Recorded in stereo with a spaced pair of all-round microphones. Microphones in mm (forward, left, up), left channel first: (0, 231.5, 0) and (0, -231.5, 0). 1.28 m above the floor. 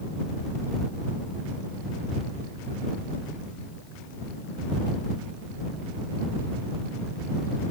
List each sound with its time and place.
Only background noise.